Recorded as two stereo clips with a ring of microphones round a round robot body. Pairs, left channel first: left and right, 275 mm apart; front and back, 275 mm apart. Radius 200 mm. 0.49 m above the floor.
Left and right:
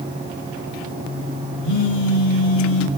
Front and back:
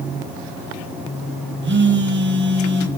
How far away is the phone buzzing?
About 3 m.